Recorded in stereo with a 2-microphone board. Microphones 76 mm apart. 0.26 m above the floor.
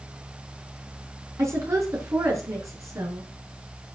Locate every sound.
1.4 s a woman speaking: 40° right (ahead or behind), 3.5 m; by 3.3 s 45° right (ahead or behind), 4.5 m